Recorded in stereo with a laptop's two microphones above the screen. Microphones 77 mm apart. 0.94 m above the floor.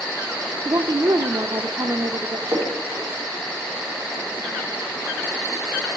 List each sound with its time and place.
0.7 s a woman speaking: 60° right (ahead or behind), 0.5 m
2.5 s a splash: 60° right (ahead or behind), 3 m